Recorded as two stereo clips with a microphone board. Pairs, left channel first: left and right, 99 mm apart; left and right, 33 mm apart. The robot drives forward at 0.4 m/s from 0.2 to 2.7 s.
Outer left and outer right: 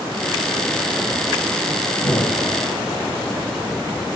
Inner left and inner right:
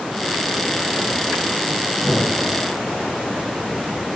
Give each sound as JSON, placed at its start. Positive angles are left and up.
{"t": 2.0, "sound": "an explosion", "side_deg": 55, "distance_m": 5.0}